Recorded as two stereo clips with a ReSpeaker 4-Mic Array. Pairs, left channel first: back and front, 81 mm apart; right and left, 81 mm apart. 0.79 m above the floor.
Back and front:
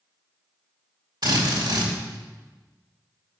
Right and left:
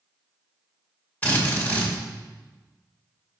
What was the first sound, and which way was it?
A drill, 20° right.